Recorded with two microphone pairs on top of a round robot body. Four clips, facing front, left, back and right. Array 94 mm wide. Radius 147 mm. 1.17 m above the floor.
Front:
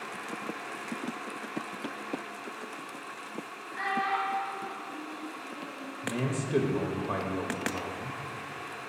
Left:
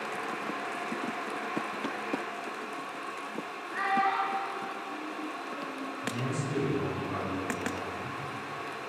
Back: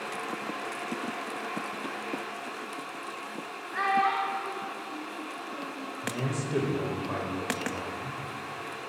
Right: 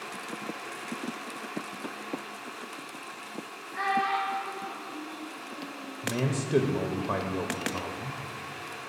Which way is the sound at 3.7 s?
165° left.